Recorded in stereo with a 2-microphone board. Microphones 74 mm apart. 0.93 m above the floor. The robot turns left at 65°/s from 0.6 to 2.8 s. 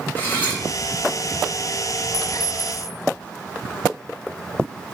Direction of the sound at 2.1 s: 60° right.